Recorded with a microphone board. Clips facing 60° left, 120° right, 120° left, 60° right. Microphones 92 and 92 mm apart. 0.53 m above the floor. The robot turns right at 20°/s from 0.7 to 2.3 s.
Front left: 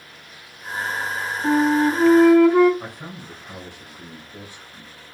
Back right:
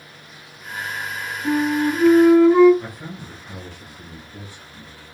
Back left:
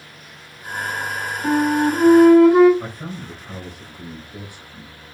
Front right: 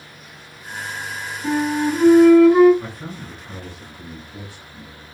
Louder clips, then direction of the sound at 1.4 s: Front left 2 dB, back left 2 dB; 80° left.